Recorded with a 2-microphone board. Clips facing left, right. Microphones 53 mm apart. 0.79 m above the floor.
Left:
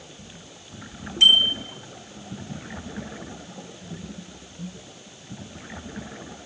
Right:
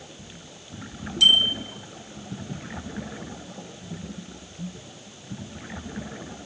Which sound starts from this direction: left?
A bicycle bell, at 1.2 s.